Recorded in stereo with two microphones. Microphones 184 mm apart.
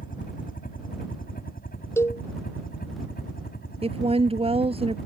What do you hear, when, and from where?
0.0 s a helicopter: 45° left (ahead or behind); by 5.1 s 55° left (ahead or behind)
2.0 s a cowbell: 15° left (ahead or behind)
3.8 s a woman speaking: 30° right (ahead or behind)